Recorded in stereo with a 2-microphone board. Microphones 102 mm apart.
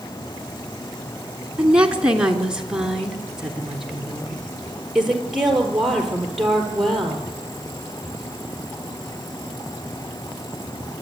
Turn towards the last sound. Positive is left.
turn(degrees=-5)  # may be behind; listen again after turning